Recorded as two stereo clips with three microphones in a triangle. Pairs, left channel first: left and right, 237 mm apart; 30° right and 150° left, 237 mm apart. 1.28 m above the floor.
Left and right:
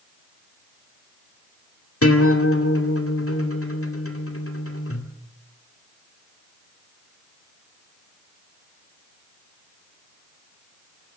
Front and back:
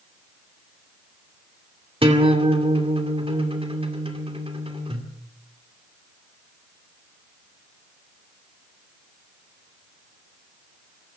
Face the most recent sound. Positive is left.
turn(degrees=85)